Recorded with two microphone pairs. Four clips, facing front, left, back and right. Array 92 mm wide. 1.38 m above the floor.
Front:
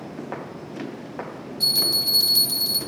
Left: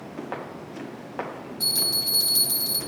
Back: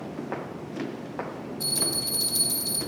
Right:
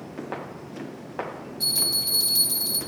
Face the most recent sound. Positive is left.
turn(degrees=60)